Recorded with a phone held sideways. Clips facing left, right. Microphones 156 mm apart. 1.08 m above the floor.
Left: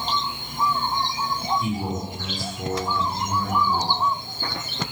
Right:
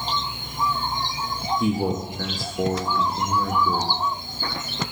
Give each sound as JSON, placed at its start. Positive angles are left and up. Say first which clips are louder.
{"t": 1.6, "sound": "a man speaking", "louder": "right 4 dB", "side_deg": -70, "distance_m": 1.6}